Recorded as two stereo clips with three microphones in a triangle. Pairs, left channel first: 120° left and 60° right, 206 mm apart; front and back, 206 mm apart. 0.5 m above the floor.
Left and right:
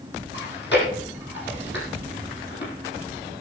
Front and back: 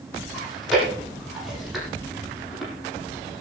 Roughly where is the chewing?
Left.